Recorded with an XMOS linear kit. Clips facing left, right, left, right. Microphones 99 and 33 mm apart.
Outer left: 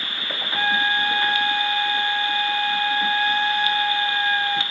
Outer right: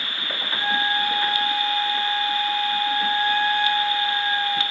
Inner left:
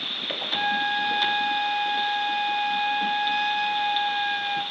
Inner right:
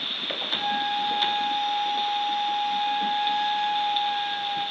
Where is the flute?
65° left (ahead or behind), 3 m.